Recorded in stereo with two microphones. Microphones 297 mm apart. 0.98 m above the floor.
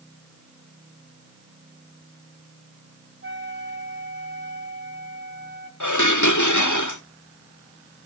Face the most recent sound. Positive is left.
turn(degrees=80)